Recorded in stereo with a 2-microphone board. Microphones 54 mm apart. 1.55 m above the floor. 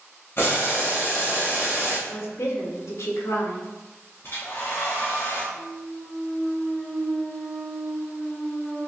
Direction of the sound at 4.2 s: 45° left (ahead or behind).